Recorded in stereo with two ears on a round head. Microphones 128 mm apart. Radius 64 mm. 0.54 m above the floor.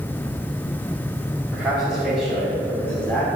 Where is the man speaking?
10° right (ahead or behind), 3 m; by 3.3 s 15° left (ahead or behind), 3.5 m.